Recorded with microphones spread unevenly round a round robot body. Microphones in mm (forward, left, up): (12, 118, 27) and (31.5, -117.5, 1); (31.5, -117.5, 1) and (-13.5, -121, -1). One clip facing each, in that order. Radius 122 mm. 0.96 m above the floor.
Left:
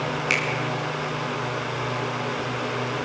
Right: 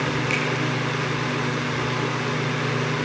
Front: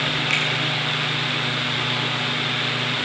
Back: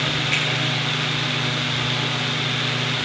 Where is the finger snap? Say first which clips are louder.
Right 3 dB, front 1 dB; 25° left, 8 m.